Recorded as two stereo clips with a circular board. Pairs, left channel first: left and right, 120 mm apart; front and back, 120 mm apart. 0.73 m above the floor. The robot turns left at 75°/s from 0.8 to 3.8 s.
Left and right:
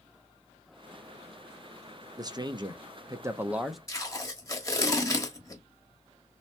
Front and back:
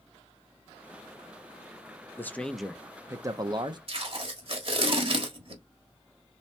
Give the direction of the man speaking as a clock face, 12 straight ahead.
2 o'clock.